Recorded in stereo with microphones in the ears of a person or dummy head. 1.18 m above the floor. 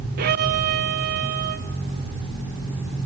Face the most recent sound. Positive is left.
turn(degrees=-50)  # may be behind; listen again after turning